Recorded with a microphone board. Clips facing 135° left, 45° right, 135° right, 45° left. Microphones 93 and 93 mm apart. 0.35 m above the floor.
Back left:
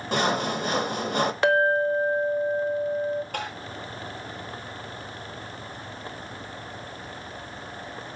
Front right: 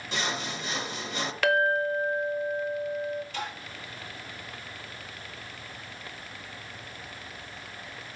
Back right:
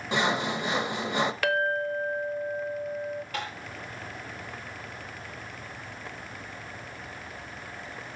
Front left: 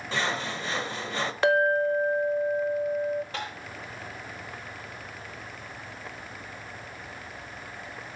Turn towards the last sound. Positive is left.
turn(degrees=105)